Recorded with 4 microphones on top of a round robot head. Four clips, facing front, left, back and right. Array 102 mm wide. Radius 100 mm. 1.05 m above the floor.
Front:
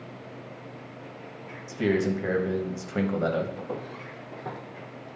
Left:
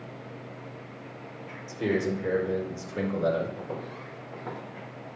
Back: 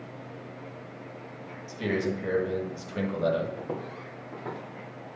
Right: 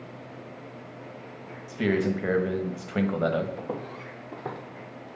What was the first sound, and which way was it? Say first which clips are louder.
A man speaking: right 2 dB, front 4 dB; 60° right.